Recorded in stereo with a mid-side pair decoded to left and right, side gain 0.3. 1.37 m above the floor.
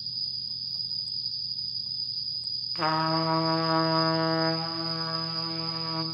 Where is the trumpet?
10° left, 0.7 m.